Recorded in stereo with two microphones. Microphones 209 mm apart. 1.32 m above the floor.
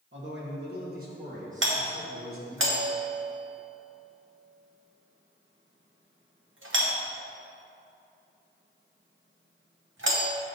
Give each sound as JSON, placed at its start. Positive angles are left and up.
{"t": 0.1, "sound": "a man speaking", "side_deg": -65, "distance_m": 1.3}
{"t": 1.6, "sound": "a doorbell", "side_deg": -70, "distance_m": 0.8}